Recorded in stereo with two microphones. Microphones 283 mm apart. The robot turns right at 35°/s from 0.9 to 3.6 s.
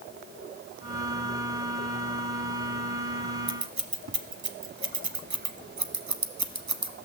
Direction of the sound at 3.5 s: 80° right.